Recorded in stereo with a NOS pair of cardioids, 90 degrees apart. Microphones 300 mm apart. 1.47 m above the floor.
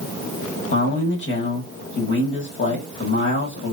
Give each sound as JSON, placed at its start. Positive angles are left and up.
{"t": 0.7, "sound": "a man speaking", "azimuth_deg": 40, "distance_m": 1.4}